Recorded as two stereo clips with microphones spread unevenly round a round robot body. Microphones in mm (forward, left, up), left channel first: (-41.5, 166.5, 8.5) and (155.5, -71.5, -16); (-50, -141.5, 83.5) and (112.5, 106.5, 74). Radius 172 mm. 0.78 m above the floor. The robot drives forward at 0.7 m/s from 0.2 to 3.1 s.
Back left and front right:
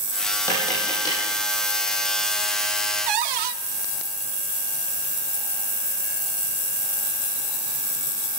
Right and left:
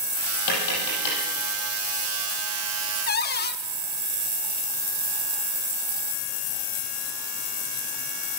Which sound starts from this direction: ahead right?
A cupboard door, at 3.1 s.